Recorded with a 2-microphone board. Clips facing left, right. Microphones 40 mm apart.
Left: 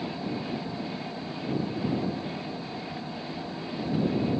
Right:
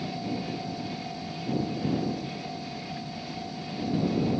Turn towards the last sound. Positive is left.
turn(degrees=35)  # may be behind; listen again after turning